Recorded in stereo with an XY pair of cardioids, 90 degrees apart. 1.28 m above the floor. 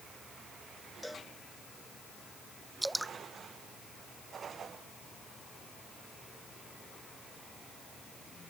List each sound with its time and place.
1.0 s a cowbell: 10° left
2.8 s dripping: 10° right